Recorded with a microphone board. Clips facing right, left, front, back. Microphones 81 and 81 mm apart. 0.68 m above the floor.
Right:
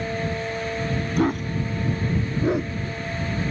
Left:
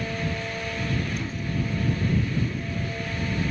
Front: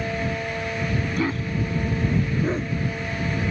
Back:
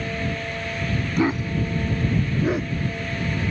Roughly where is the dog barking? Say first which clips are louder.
Right 7 dB, back 7 dB; behind right.